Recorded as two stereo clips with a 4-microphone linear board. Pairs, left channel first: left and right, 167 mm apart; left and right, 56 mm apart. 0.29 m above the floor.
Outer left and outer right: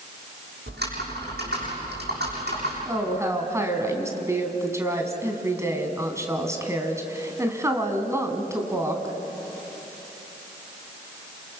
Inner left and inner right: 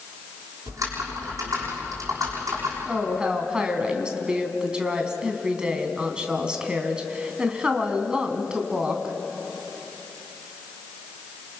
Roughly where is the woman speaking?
Centre.